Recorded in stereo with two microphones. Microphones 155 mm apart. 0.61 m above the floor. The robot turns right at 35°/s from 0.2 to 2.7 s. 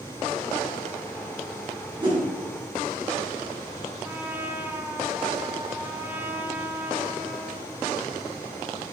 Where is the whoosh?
30° right (ahead or behind), 5.5 m; by 2.2 s 20° right (ahead or behind), 5.5 m.